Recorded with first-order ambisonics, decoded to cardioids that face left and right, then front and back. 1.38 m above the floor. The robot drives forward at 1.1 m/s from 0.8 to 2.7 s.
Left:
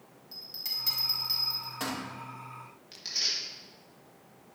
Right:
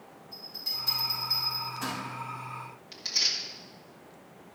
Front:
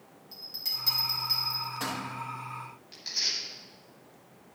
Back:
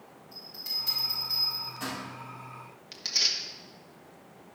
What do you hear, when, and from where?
0.3 s a bell: 55° left, 4 m; by 2.0 s 75° left, 3.5 m
2.9 s tearing paper: 170° right, 1.9 m